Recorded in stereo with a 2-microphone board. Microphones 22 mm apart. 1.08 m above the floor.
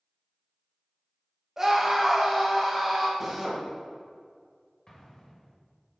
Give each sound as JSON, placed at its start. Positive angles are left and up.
{"t": 1.6, "sound": "a scream", "side_deg": -25, "distance_m": 1.4}
{"t": 3.2, "sound": "a drill", "side_deg": -10, "distance_m": 1.1}
{"t": 4.9, "sound": "an explosion", "side_deg": 35, "distance_m": 1.4}